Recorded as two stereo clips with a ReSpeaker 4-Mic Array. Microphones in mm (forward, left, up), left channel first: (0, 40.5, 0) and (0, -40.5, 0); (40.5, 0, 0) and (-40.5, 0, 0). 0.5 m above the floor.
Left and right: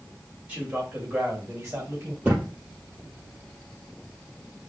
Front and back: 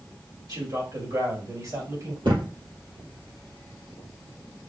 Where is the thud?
165° right, 3.5 m.